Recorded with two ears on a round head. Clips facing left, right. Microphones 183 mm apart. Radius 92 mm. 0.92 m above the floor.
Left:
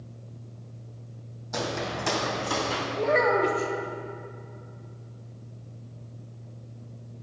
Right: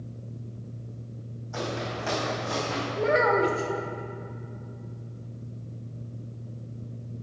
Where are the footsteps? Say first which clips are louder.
Left 1 dB; 50° left (ahead or behind), 1.6 m.